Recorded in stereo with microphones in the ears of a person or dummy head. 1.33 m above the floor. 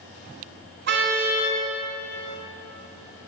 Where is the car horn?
50° right (ahead or behind), 6.5 m.